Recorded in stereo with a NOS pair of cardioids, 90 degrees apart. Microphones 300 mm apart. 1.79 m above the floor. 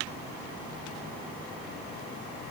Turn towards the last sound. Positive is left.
No sound to turn to.